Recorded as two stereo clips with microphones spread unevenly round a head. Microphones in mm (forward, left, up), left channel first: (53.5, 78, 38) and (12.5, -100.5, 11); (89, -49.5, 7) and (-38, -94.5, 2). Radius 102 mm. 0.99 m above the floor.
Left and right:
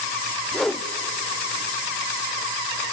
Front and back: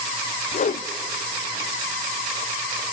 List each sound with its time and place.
0.5 s a whoosh: 15° right, 0.5 m